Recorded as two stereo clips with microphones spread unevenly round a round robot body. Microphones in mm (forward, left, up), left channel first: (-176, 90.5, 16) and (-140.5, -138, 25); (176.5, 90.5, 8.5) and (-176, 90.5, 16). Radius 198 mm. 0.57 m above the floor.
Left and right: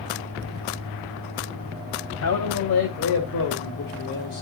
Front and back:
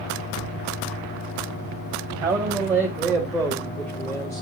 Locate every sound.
2.2 s a man speaking: 100° left, 2.5 m; by 4.4 s 80° left, 1.7 m